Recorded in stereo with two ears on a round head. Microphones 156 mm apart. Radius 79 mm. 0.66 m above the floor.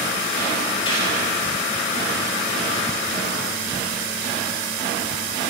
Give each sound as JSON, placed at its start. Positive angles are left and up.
{"t": 0.8, "sound": "a gunshot", "side_deg": 30, "distance_m": 3.0}